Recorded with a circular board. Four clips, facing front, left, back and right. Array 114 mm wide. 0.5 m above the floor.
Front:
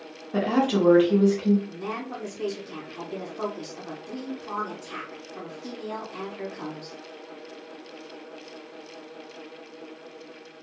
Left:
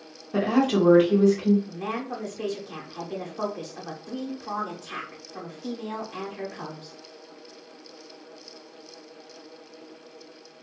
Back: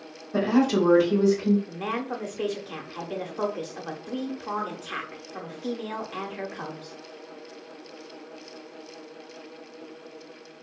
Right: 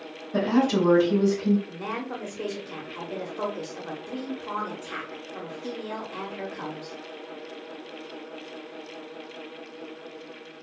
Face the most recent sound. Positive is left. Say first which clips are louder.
# left 1 dB, back 3 dB
turn(degrees=-170)